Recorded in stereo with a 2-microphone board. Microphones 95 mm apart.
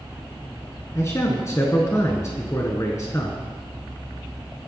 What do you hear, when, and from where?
0.9 s a man speaking: 35° left (ahead or behind), 1.3 m